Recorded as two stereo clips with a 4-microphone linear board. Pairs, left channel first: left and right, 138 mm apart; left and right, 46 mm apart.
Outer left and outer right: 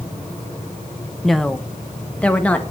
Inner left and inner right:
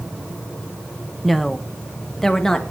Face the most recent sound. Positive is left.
turn(degrees=10)  # may be behind; listen again after turning